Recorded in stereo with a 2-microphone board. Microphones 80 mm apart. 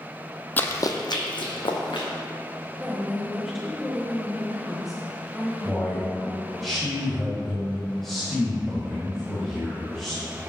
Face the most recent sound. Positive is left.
turn(degrees=0)  # may be behind; listen again after turning